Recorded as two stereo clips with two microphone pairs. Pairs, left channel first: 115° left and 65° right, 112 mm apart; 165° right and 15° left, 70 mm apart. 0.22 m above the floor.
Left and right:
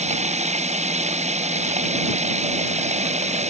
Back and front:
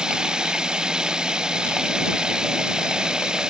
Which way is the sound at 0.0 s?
65° right.